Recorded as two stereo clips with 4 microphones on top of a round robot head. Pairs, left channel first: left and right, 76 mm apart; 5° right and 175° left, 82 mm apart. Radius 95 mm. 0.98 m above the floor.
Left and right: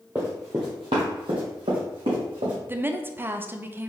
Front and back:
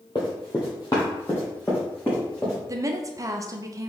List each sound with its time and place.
0.1 s running footsteps: 15° right, 1.0 m; by 2.6 s 85° right, 2.5 m
2.7 s a woman speaking: 150° right, 0.5 m